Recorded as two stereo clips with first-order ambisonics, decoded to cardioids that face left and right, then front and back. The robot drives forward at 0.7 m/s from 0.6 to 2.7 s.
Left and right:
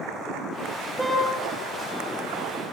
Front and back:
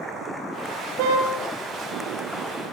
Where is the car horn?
170° right, 6.5 m.